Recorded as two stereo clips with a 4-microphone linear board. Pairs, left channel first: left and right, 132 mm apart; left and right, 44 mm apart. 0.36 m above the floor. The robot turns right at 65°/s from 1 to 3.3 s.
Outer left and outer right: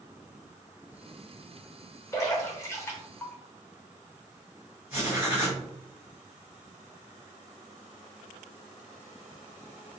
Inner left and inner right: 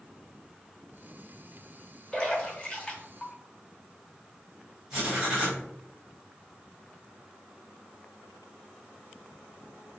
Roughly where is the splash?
Left.